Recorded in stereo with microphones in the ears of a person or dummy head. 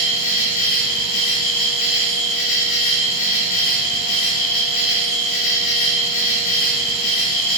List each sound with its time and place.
0.0 s an insect: 45° left (ahead or behind), 2.5 m